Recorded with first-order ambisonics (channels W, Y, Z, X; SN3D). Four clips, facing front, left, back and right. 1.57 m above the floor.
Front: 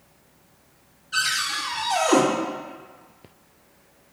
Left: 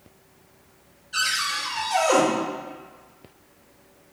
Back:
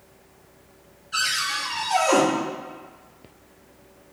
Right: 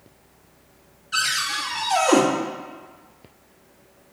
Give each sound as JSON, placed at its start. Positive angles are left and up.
{"t": 1.1, "sound": "a cupboard door", "azimuth_deg": -90, "distance_m": 2.0}